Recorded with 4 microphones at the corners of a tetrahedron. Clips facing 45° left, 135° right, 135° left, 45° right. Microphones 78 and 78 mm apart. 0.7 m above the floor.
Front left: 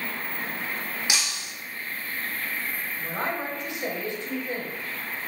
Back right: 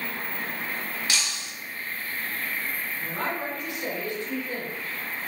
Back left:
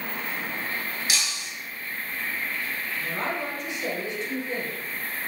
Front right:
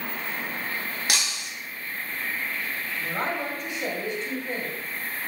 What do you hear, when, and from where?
1.1 s breaking glass: 25° right, 0.5 m
3.0 s a woman speaking: 20° right, 0.9 m